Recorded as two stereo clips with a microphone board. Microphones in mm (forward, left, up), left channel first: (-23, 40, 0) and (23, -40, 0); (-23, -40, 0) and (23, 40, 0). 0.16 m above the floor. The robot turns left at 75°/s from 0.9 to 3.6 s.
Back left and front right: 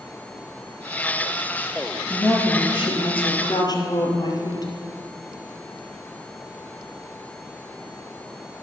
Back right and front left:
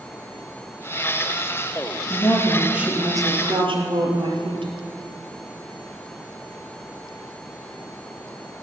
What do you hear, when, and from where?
2.1 s a woman speaking: 170° right, 3 m; by 4.7 s 75° left, 3 m